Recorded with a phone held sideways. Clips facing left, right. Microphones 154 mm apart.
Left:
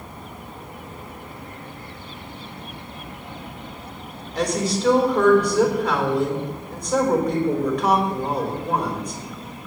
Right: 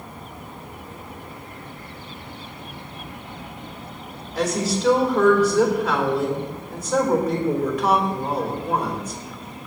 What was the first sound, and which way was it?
A woman speaking, 5° right (ahead or behind).